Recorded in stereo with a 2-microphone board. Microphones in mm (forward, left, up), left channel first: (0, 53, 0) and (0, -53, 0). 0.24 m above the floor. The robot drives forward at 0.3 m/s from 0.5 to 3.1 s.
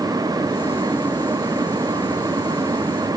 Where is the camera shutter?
No camera shutter in this recording.